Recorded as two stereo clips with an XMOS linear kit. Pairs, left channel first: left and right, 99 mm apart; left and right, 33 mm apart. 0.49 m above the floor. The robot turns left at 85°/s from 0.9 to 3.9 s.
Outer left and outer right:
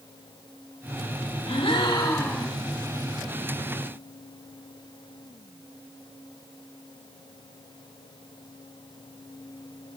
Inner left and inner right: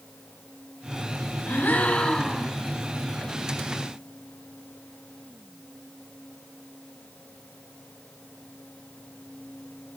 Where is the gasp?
90° left, 0.8 m; by 2.5 s 5° right, 0.8 m.